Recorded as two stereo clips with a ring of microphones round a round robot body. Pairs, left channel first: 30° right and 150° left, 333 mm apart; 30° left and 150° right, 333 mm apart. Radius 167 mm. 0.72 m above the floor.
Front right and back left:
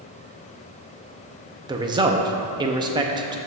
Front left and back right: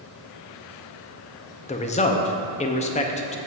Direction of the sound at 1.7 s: 85° left.